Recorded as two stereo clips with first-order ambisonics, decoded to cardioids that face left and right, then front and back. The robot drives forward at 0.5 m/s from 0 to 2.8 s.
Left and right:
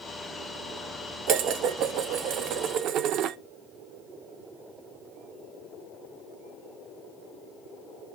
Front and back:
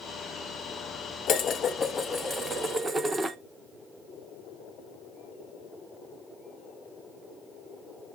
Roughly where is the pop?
No pop in this recording.